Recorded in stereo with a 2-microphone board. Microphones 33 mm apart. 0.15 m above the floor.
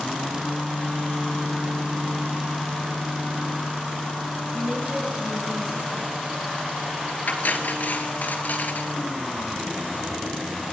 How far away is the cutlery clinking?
About 1.4 m.